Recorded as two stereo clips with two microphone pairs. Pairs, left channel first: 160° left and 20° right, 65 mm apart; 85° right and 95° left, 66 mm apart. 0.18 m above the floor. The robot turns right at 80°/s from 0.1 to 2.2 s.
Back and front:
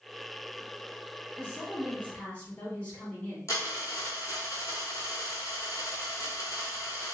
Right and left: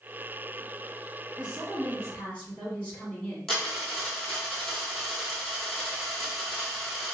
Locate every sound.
1.4 s a woman speaking: 145° left, 1.8 m; by 3.4 s 145° right, 1.8 m
3.5 s a dropped coin: 170° right, 1.1 m